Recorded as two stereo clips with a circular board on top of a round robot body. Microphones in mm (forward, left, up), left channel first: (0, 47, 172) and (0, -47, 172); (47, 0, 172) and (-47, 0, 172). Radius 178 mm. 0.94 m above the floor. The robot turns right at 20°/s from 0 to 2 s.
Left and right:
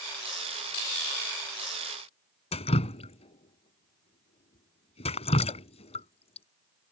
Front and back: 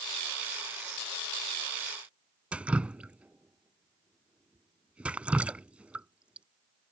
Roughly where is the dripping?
Left.